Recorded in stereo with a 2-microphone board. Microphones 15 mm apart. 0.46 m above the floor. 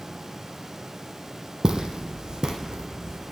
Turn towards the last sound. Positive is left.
turn(degrees=-45)  # may be behind; listen again after turning